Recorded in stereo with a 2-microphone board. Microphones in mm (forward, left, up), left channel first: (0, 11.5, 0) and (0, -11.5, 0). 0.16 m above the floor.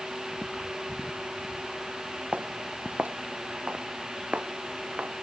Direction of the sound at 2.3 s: 85° right.